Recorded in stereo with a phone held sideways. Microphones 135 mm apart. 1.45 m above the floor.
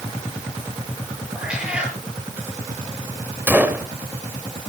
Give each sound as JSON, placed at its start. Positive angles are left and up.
{"t": 1.4, "sound": "a cat meowing", "side_deg": -5, "distance_m": 7.0}
{"t": 3.5, "sound": "a gunshot", "side_deg": -15, "distance_m": 2.5}